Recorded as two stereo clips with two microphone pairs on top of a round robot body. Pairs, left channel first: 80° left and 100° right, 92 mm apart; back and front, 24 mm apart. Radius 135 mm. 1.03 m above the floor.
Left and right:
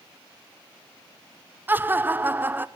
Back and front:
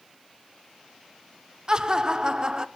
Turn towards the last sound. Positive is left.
turn(degrees=-35)